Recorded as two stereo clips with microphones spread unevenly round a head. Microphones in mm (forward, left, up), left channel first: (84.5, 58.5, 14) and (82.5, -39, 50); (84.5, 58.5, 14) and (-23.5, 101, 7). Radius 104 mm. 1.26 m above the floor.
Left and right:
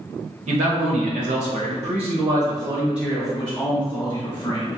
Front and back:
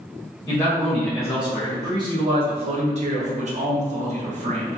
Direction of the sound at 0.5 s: 95° right.